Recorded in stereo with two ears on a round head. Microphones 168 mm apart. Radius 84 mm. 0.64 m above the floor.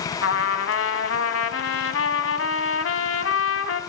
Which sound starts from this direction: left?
A trumpet, at 0.2 s.